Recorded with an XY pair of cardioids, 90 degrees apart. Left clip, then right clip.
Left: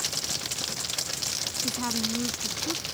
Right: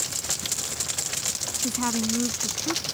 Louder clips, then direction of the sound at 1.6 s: Right 5 dB; 30° right.